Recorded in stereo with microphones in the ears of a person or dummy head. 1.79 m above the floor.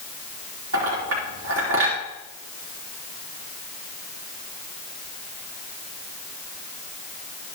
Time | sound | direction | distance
0.7 | a clink | 80° right | 3.5 m